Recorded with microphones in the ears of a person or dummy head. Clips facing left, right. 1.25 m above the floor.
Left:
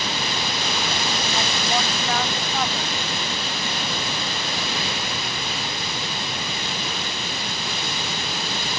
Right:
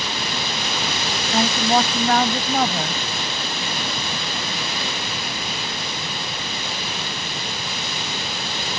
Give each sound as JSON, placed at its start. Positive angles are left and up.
{"t": 1.3, "sound": "a woman speaking", "side_deg": -50}